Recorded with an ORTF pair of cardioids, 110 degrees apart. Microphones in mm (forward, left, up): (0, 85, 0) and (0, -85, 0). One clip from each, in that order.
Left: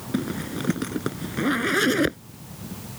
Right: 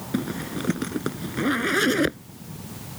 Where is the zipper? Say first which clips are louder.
Even; straight ahead.